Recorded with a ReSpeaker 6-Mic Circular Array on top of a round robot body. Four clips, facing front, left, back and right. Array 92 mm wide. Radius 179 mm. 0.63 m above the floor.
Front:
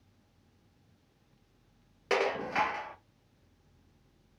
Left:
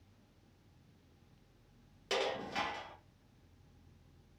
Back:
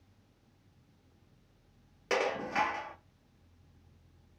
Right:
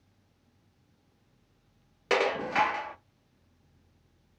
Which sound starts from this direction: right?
Dishes clattering, at 2.1 s.